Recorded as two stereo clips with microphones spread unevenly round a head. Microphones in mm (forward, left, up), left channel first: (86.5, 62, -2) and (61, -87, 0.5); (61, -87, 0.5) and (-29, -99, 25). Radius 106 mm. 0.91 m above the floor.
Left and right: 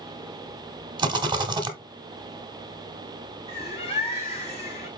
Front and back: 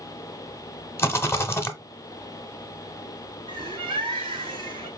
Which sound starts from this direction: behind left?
A bird, at 3.5 s.